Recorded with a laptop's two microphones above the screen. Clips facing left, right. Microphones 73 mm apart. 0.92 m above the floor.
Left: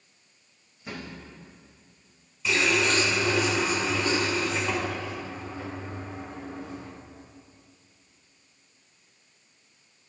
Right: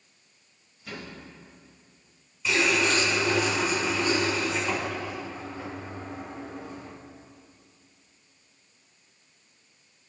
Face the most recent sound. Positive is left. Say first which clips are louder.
# even
turn(degrees=0)  # may be behind; listen again after turning